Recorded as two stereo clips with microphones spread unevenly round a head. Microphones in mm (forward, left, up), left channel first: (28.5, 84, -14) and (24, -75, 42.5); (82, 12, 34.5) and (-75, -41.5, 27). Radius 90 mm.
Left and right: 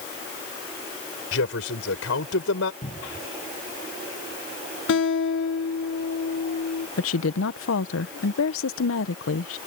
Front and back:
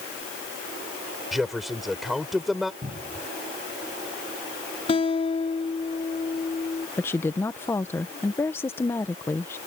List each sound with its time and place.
1.3 s a man speaking: 110° left
2.8 s a cupboard door: 145° left
4.9 s a guitar: 80° left
7.0 s a woman speaking: 95° left